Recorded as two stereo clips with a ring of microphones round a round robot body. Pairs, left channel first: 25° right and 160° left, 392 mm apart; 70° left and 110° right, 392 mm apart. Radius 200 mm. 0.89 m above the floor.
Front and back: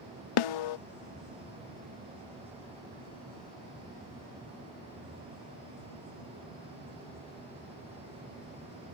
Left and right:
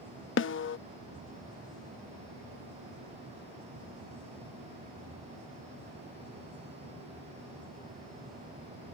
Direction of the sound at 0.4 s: 5° left.